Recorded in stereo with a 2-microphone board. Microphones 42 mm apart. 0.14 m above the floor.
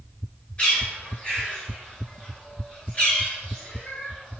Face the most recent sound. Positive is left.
turn(degrees=30)  # may be behind; listen again after turning